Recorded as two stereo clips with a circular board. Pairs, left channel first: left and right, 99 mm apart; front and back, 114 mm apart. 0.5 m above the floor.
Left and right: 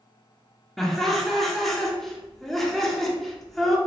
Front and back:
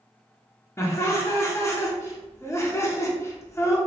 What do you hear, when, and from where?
0.8 s laughter: 5° left, 0.7 m